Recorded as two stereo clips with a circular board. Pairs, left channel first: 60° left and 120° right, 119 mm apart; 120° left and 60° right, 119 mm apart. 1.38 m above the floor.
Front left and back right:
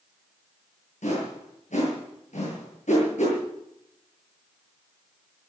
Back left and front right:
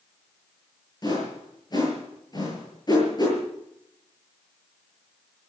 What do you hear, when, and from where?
1.0 s a whoosh: 65° left, 8 m